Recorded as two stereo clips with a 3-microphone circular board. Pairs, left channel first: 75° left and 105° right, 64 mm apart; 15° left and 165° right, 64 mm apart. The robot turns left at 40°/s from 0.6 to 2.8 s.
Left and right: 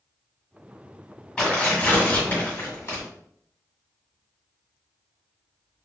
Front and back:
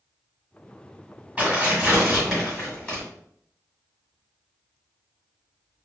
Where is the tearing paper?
140° left, 1.6 m; by 3.0 s 80° left, 1.6 m.